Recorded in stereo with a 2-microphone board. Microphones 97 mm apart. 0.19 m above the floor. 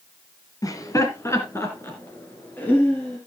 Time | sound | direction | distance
0.6 | laughter | 40° left (ahead or behind) | 1.5 m